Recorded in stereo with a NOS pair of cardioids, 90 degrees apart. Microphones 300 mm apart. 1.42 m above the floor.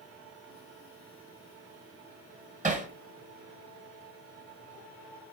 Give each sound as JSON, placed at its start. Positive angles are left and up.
{"t": 2.6, "sound": "hammering", "azimuth_deg": -25, "distance_m": 0.9}